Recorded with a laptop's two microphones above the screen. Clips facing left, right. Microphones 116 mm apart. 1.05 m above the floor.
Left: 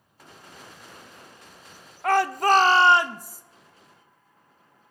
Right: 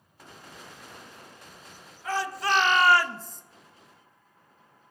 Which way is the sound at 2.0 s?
70° left (ahead or behind).